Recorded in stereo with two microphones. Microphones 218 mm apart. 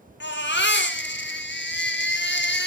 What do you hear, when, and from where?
0.2 s a baby crying: 55° left (ahead or behind), 1.5 m